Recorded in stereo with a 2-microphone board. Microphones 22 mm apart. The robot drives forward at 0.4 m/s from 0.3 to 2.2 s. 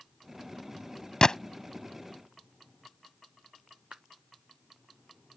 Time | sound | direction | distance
1.2 | a gunshot | 35° left (ahead or behind) | ?
3.9 | a clap | 75° right (ahead or behind) | ?